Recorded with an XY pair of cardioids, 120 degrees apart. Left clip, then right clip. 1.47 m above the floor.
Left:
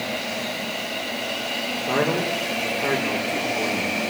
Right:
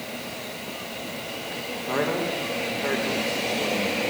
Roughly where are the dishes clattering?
I don't hear dishes clattering.